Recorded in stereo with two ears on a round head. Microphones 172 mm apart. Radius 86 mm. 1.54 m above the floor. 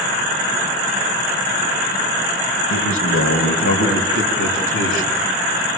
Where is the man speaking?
80° left, 2 m.